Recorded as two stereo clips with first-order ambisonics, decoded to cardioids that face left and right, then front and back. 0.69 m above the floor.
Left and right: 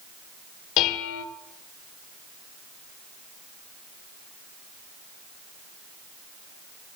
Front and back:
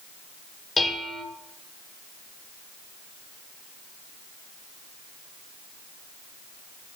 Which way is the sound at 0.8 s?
75° left.